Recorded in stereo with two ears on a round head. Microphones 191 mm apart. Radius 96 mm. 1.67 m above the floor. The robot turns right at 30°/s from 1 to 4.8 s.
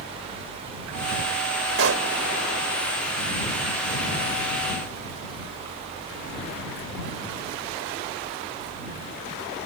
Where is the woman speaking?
I don't hear a woman speaking.